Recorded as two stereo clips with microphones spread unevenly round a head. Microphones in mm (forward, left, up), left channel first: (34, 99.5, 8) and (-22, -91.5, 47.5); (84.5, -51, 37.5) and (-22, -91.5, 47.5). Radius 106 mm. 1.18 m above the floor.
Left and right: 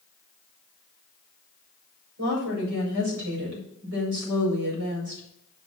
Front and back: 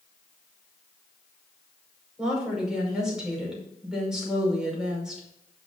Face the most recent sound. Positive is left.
turn(degrees=-75)